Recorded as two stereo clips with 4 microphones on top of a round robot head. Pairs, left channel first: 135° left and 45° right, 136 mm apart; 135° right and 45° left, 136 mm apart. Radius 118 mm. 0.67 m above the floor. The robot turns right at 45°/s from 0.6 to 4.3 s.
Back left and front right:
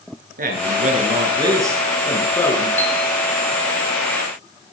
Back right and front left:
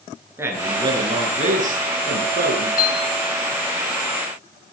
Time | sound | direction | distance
0.4 | a man speaking | 25° right | 9 m
2.8 | a piano | 150° right | 4.5 m